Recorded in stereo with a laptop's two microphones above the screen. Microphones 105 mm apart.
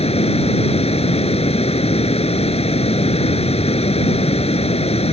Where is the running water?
75° left (ahead or behind).